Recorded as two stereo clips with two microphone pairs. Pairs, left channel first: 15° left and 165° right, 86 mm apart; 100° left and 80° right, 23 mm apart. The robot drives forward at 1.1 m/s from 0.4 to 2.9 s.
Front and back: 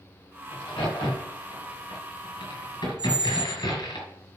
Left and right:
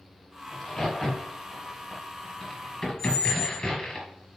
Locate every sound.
0.5 s a crack: 25° left, 6.5 m; by 4.0 s 40° left, 4.5 m
3.0 s a squeak: 175° left, 1.7 m